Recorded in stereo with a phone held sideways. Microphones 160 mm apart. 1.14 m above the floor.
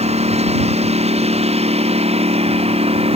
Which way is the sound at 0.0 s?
40° right (ahead or behind).